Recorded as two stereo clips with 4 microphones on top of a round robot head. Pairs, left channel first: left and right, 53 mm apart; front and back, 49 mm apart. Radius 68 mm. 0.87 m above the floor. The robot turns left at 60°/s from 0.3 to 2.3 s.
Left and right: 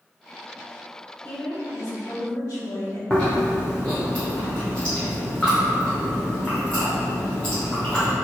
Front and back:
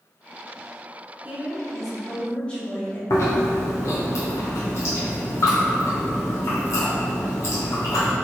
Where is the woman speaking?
130° left, 1.3 m; by 3.0 s 70° left, 1.3 m.